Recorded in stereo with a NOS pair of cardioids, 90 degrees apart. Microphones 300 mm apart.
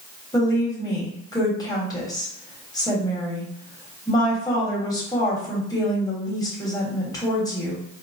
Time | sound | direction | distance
0.3 | a woman speaking | 10° left | 1.4 m